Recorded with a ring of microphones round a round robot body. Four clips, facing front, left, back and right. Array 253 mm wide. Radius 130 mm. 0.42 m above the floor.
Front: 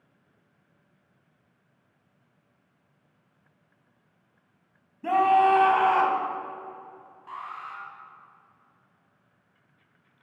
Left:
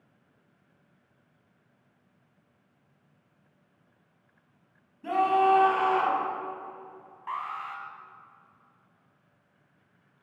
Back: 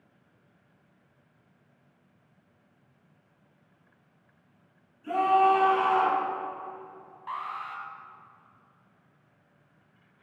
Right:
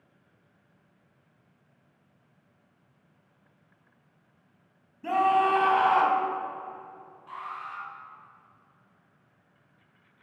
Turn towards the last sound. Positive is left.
turn(degrees=120)